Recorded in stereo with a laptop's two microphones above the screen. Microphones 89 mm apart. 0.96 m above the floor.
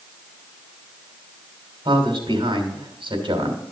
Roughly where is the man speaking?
Right.